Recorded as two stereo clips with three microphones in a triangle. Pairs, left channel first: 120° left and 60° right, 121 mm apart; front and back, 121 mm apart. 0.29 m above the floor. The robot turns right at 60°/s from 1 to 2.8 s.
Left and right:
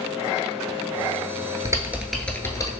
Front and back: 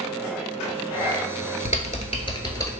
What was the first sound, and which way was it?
Typing on a keyboard, straight ahead.